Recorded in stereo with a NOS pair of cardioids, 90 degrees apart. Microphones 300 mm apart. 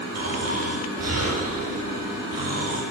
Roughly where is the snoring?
Ahead right.